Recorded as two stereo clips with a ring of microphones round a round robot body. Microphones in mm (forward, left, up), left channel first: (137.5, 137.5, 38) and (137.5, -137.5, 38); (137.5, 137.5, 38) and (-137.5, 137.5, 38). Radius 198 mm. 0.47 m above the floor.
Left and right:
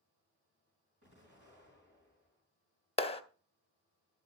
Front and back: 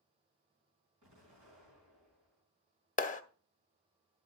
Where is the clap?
35° left, 0.8 m.